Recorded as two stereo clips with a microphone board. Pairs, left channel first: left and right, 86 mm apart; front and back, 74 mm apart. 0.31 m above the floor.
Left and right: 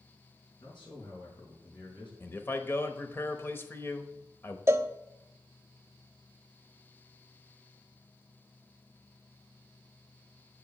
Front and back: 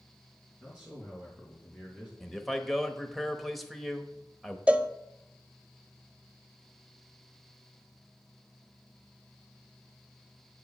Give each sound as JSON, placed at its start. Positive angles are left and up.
{"t": 0.6, "sound": "a man speaking", "azimuth_deg": 105, "distance_m": 4.5}
{"t": 2.2, "sound": "a man speaking", "azimuth_deg": 90, "distance_m": 1.0}
{"t": 4.7, "sound": "a cowbell", "azimuth_deg": -115, "distance_m": 0.6}